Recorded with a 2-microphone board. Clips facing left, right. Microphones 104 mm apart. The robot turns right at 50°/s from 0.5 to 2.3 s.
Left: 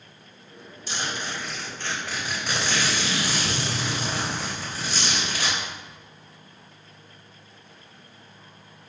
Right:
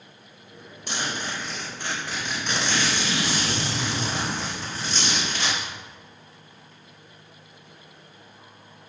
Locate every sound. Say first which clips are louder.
0.9 s a zipper: right 1 dB; 65° right, 3.5 m; by 5.6 s 10° left, 3.5 m